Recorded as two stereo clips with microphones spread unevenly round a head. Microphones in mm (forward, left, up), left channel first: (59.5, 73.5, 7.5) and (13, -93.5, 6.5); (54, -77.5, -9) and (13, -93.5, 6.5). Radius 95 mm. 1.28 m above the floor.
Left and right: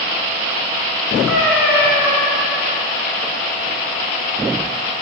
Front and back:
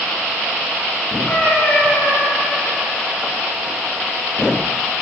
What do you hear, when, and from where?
1.3 s a cat meowing: 90° left, 2 m